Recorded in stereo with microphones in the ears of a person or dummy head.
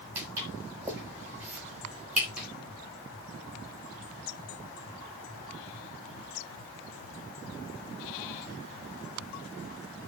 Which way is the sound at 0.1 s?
15° right (ahead or behind).